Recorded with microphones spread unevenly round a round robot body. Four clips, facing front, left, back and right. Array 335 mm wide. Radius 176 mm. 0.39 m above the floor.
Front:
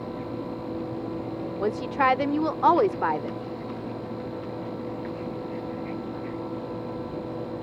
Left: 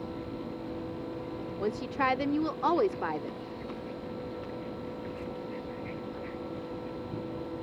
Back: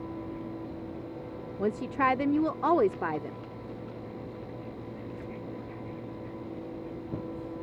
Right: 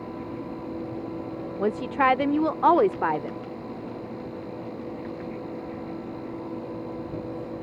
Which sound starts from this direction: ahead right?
A woman speaking, at 1.6 s.